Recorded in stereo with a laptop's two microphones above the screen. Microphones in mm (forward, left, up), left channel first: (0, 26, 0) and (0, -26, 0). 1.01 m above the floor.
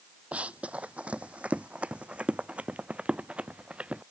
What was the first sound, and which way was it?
Running footsteps, 25° right (ahead or behind).